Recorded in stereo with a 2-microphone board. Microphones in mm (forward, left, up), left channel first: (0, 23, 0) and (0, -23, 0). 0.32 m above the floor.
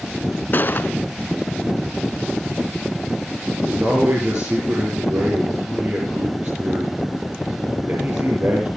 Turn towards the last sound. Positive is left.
turn(degrees=-55)  # may be behind; listen again after turning